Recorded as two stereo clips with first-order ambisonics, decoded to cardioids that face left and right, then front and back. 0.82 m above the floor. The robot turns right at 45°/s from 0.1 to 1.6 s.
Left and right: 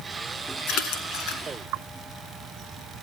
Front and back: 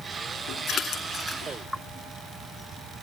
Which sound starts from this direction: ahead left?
A splash, at 0.7 s.